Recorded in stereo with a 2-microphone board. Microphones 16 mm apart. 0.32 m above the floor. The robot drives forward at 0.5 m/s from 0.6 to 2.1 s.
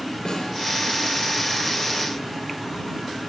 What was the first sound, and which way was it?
A snare drum, 60° left (ahead or behind).